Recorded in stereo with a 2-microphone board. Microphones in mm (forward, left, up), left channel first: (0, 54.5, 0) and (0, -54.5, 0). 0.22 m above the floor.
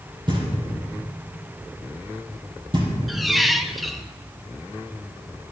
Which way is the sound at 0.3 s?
45° right (ahead or behind).